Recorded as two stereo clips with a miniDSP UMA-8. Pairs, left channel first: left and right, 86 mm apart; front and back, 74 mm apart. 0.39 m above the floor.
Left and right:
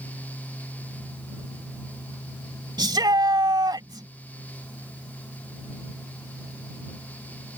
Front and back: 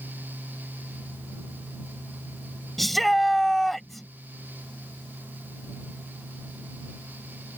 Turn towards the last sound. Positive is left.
turn(degrees=-90)